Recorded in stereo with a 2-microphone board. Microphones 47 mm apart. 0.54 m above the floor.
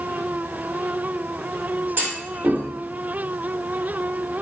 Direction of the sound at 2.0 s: 50° right (ahead or behind).